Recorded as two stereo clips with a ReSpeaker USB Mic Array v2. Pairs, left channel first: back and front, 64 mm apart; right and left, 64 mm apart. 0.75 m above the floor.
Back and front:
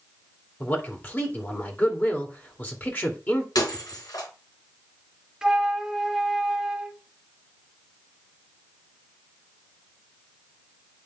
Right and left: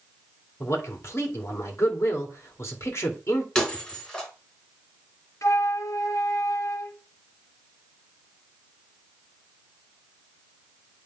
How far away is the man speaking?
About 2 m.